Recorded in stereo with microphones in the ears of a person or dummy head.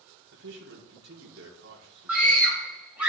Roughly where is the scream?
Centre.